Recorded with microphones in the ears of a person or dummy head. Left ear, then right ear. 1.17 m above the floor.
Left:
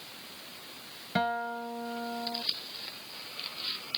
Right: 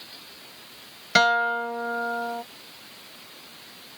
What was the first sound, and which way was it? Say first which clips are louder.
A guitar: right 11 dB; 65° right (ahead or behind).